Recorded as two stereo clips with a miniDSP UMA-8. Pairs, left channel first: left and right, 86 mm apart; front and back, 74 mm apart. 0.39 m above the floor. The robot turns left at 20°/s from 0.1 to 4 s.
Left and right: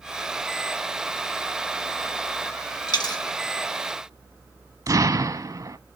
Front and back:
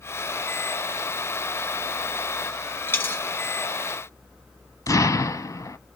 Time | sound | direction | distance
2.9 | a dropped coin | 60° left | 1.7 m
4.9 | an explosion | 40° right | 0.7 m